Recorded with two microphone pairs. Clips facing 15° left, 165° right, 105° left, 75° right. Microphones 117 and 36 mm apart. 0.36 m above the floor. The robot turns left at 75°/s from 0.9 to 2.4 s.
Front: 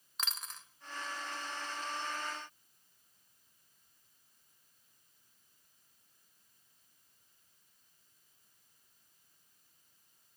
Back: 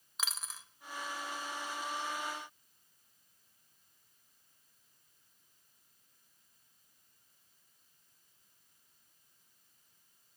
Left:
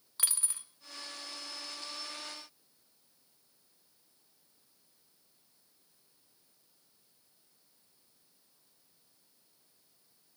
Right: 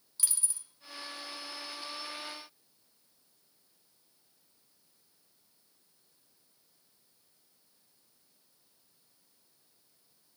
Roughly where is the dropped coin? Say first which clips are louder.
Even, left 1 dB; left.